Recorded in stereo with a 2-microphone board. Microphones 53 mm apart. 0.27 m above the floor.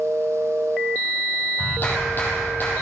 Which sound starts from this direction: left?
A clap, at 1.6 s.